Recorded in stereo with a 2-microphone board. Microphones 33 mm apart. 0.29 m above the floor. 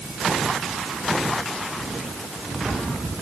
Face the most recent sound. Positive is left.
No sound to turn to.